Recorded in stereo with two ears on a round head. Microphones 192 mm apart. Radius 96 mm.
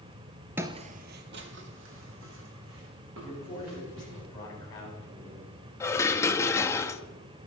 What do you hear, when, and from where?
0.6 s footsteps: 10° right (ahead or behind), 0.7 m; by 4.2 s 70° right (ahead or behind), 5.5 m
3.2 s a man speaking: 20° left (ahead or behind), 6 m
5.8 s dishes clattering: 15° left (ahead or behind), 0.6 m